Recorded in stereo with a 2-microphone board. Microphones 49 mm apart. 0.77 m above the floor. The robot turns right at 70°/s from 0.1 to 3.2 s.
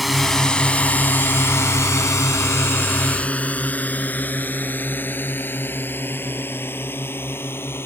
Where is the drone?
Centre (ahead or behind); by 7.9 s 55° left (ahead or behind).